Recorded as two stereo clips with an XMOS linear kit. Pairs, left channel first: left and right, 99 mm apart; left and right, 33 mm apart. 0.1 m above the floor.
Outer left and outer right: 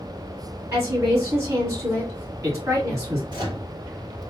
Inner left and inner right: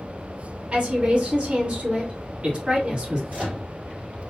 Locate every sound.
0.7 s a woman speaking: 25° right (ahead or behind), 2 m
3.3 s a microwave: 40° right (ahead or behind), 1.8 m